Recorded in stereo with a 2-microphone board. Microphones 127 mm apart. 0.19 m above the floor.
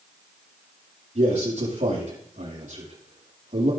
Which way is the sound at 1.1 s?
75° right (ahead or behind).